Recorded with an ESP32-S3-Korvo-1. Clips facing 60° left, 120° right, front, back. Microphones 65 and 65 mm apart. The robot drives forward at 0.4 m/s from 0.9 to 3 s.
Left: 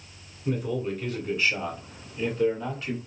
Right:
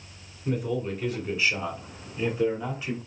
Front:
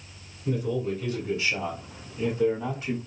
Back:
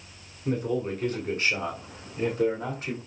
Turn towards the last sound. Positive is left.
turn(degrees=165)